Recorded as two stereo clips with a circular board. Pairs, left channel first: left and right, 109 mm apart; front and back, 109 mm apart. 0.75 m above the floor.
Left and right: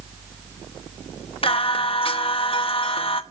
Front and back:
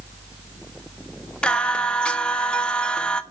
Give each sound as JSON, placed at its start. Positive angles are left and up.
{"t": 1.4, "sound": "singing", "azimuth_deg": 80, "distance_m": 1.2}